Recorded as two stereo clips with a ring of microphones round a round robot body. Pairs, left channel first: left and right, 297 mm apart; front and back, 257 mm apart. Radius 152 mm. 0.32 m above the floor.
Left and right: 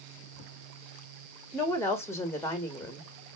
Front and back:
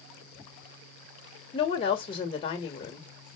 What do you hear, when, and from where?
1.5 s a woman speaking: 20° left, 1.3 m